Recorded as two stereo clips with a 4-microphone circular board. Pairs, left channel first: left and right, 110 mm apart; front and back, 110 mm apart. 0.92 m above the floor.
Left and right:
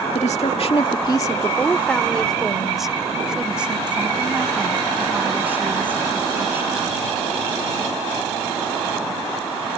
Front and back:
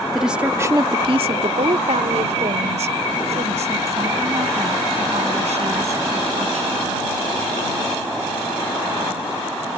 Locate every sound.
0.1 s a woman speaking: 90° left; by 6.8 s 160° right